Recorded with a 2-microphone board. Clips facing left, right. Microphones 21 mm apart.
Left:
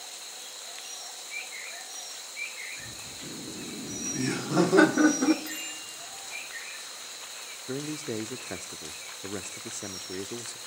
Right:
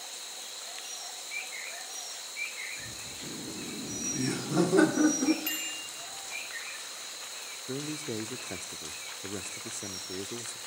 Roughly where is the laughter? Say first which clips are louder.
Even; centre.